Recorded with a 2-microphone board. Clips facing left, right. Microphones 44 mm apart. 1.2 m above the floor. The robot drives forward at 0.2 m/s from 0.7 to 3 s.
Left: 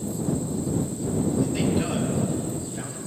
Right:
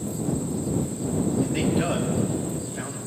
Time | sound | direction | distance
1.4 | a man speaking | 35° right (ahead or behind) | 2 m